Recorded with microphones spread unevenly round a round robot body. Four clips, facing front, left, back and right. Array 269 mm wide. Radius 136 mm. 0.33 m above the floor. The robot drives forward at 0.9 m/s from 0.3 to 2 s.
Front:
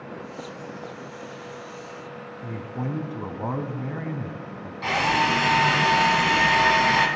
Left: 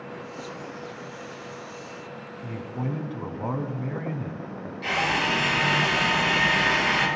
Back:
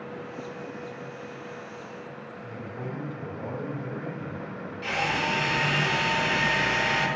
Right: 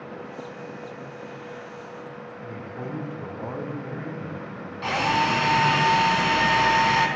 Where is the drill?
50° right, 3.5 m.